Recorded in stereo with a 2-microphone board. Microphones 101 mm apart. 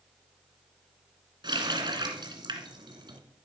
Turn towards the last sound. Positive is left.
turn(degrees=-50)  # may be behind; listen again after turning